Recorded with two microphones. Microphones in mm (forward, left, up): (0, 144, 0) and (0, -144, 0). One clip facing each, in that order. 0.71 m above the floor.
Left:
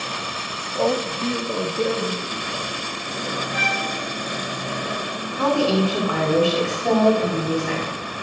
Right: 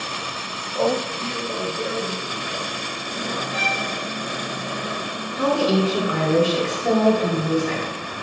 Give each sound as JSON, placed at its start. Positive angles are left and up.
{"t": 0.8, "sound": "a man speaking", "side_deg": 0, "distance_m": 0.5}
{"t": 3.5, "sound": "a violin", "side_deg": 15, "distance_m": 1.5}
{"t": 5.4, "sound": "a woman speaking", "side_deg": -5, "distance_m": 2.0}